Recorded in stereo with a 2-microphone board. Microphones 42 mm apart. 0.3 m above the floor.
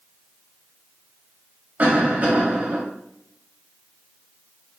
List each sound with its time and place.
1.8 s a cough: 40° right (ahead or behind), 1.3 m